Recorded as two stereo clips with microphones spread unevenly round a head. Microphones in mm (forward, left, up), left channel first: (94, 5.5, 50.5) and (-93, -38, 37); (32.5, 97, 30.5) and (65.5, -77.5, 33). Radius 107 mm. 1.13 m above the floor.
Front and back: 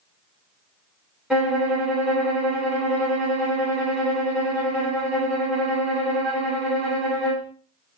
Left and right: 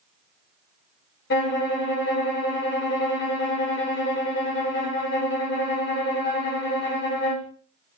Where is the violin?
110° left, 1.4 m.